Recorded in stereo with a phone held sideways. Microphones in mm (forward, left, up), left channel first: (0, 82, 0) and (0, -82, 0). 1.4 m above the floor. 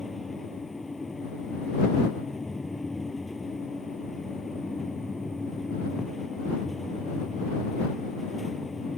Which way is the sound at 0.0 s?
Centre (ahead or behind).